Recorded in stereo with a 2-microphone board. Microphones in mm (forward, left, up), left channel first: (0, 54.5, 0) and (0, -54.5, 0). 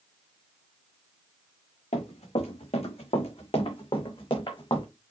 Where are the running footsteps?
75° left (ahead or behind), 4 m; by 4.8 s 40° left (ahead or behind), 4 m.